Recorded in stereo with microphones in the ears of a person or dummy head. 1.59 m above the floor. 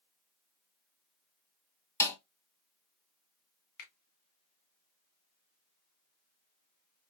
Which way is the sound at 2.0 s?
15° left (ahead or behind).